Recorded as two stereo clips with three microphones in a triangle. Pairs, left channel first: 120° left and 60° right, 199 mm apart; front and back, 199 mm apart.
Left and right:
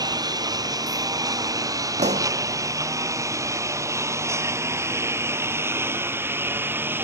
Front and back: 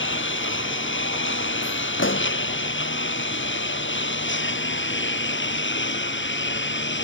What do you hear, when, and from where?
0.0 s a lawn mower: 10° left; by 7.0 s 20° left
2.0 s a pop: 5° right